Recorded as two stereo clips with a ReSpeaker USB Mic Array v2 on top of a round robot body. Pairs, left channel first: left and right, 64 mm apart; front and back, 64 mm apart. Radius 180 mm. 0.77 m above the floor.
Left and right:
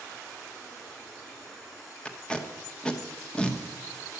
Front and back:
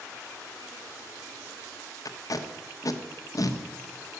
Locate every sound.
2.0 s tape being pulled: 15° left, 1.5 m